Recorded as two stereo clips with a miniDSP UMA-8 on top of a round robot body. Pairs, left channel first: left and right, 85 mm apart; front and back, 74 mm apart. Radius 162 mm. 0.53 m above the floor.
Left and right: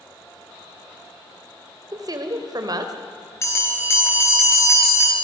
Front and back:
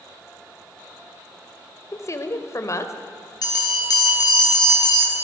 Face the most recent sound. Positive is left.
turn(degrees=35)